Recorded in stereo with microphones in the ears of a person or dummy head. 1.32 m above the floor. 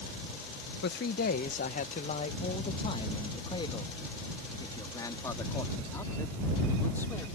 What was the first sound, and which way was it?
A man speaking, 55° left (ahead or behind).